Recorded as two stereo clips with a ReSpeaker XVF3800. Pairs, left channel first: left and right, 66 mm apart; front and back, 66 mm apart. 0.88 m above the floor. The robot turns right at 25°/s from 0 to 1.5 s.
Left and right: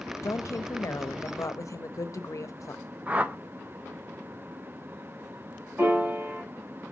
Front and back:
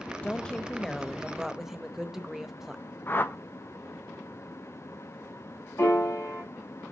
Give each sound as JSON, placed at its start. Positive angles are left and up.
{"t": 0.2, "sound": "a woman speaking", "azimuth_deg": 65, "distance_m": 0.6}
{"t": 3.1, "sound": "a whoosh", "azimuth_deg": -35, "distance_m": 0.5}
{"t": 5.8, "sound": "a piano", "azimuth_deg": -35, "distance_m": 2.0}